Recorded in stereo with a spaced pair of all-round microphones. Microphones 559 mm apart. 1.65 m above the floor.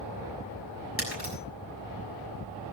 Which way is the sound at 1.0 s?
25° right (ahead or behind).